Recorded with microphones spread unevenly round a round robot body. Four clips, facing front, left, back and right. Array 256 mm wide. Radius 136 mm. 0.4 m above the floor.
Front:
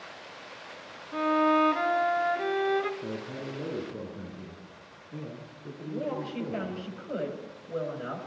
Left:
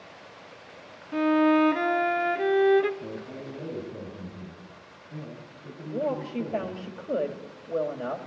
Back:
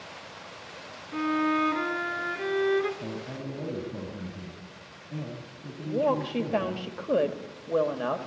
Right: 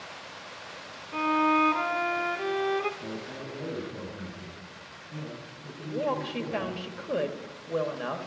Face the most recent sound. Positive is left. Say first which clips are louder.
# left 1 dB, back 7 dB
turn(degrees=170)